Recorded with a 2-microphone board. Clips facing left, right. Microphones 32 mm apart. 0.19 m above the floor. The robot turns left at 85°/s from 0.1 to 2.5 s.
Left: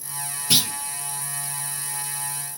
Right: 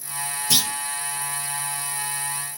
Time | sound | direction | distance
0.5 | a clunk | 30° left (ahead or behind) | 1.0 m